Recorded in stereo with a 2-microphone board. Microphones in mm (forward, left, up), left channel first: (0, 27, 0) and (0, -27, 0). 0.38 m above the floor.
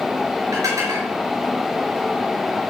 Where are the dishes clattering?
80° right, 4 m.